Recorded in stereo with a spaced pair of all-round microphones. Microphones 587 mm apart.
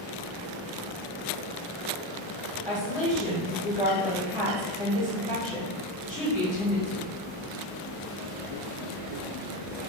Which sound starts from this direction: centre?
A woman speaking, at 2.6 s.